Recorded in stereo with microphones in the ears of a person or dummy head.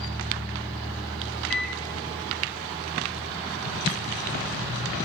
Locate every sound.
1.5 s a microwave: 5° left (ahead or behind), 2.5 m